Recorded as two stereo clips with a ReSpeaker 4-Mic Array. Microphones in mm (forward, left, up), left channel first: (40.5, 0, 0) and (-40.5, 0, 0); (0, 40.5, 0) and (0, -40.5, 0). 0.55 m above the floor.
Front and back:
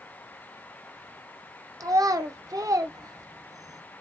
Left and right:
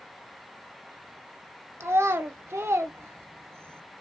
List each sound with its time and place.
1.8 s a child speaking: 140° right, 0.5 m